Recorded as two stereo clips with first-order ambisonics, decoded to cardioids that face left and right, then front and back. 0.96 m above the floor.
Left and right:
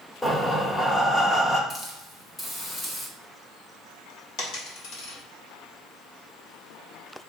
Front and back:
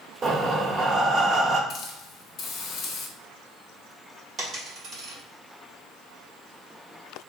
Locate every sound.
0.2 s breathing: 145° left, 0.5 m
1.7 s a hiss: 25° left, 0.9 m
4.4 s a dropped coin: 120° left, 1.5 m